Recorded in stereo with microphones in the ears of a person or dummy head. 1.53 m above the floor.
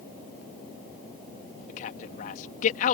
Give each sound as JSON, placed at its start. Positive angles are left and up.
{"t": 1.7, "sound": "a man speaking", "side_deg": 50}